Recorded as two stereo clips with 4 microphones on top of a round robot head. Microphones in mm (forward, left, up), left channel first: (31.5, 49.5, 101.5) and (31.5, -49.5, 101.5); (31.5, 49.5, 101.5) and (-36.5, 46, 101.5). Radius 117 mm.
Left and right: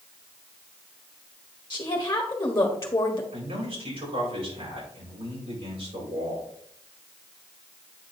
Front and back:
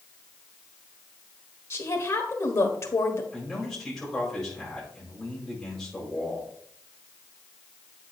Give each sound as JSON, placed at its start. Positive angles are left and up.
{"t": 1.7, "sound": "a woman speaking", "azimuth_deg": 30, "distance_m": 1.4}
{"t": 3.3, "sound": "a man speaking", "azimuth_deg": -80, "distance_m": 5.0}